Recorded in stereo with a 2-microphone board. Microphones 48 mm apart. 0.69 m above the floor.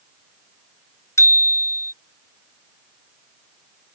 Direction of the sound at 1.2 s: 75° left (ahead or behind).